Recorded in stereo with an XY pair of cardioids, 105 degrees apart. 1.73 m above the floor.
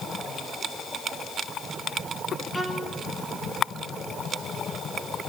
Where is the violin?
10° right, 4.5 m.